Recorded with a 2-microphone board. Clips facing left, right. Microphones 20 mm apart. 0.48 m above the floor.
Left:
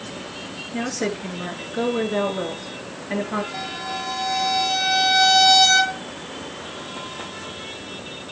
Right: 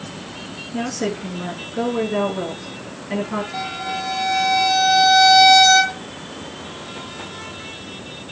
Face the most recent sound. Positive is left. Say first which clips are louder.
# right 3 dB
turn(degrees=-35)  # may be behind; listen again after turning